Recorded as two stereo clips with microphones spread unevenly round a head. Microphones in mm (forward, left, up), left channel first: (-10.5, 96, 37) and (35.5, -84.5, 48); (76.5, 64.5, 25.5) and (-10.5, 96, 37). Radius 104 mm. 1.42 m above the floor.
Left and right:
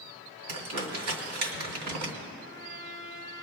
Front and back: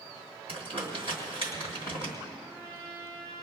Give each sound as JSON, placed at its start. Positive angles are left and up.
{"t": 0.5, "sound": "crumpling", "azimuth_deg": -75, "distance_m": 2.0}
{"t": 2.4, "sound": "a trumpet", "azimuth_deg": -30, "distance_m": 4.5}